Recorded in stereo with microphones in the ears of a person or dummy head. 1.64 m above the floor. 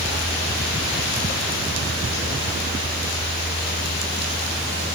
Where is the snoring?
No snoring in this recording.